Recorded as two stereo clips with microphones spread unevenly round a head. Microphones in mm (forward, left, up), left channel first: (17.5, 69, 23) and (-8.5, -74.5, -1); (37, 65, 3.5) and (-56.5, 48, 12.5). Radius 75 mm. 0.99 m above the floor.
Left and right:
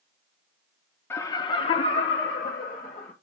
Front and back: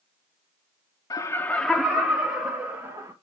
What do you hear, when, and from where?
1.1 s laughter: straight ahead, 0.7 m; by 3.1 s 145° left, 1.6 m